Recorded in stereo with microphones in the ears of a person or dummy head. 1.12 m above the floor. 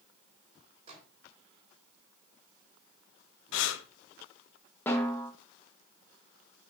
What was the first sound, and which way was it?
A microwave, 35° right (ahead or behind).